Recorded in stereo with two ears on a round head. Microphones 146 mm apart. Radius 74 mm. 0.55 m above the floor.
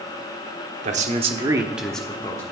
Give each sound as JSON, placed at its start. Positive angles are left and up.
{"t": 0.8, "sound": "a man speaking", "side_deg": -45, "distance_m": 1.3}